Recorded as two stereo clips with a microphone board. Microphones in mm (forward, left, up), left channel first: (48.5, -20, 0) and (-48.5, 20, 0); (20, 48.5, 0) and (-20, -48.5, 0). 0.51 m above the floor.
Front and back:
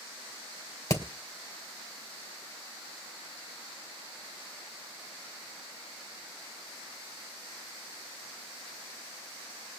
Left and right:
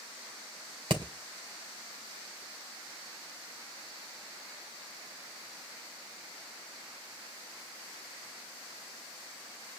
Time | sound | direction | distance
0.9 | hammering | 80° right | 2.5 m